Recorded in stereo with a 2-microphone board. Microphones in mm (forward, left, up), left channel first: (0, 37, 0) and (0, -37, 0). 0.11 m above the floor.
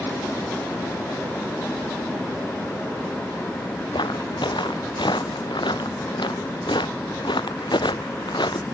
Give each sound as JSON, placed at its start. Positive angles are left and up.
{"t": 3.9, "sound": "footsteps", "side_deg": 90}